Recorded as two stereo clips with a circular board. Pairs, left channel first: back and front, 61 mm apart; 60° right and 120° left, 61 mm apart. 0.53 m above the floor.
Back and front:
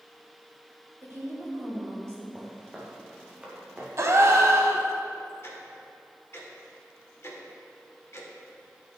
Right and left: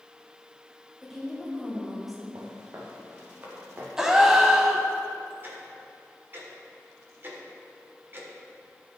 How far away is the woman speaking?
About 3 m.